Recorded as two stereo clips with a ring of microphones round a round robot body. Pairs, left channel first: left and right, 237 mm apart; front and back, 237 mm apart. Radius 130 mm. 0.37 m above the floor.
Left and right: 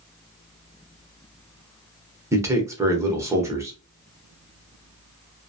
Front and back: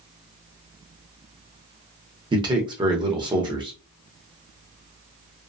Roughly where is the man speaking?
Behind right.